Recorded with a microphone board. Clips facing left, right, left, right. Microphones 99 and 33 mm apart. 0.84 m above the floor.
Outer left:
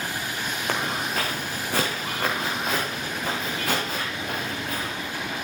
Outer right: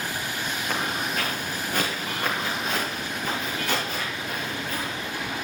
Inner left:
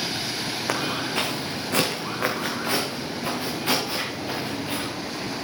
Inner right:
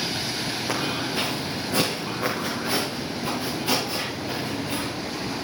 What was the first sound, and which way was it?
Footsteps, 75° left (ahead or behind).